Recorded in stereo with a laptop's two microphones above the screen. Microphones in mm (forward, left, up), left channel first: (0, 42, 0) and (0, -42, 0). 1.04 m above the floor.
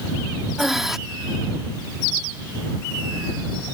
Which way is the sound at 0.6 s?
5° right (ahead or behind).